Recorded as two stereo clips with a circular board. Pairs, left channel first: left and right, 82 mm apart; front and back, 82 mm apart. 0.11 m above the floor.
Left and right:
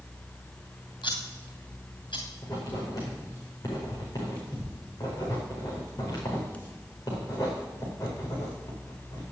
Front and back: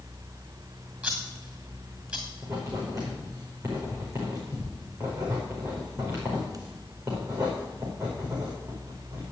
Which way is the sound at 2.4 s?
135° left.